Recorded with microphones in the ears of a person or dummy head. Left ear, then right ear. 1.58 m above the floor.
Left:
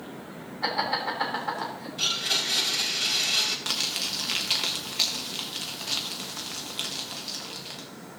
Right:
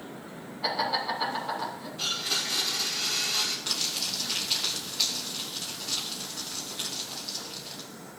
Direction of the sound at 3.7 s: 35° left (ahead or behind).